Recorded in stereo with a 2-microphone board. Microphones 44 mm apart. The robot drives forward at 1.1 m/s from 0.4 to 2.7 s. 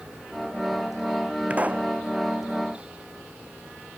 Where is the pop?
30° right (ahead or behind).